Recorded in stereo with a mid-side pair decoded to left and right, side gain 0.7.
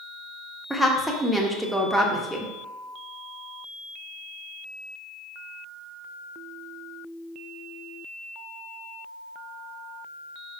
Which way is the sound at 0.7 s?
5° right.